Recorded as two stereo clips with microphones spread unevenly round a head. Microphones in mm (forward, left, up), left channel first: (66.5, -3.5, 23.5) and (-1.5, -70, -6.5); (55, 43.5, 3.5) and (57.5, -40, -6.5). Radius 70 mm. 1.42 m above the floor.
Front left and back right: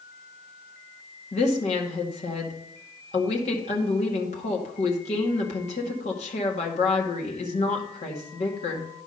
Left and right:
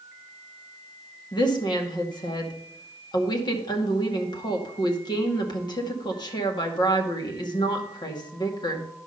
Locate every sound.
1.3 s a woman speaking: 60° left, 2 m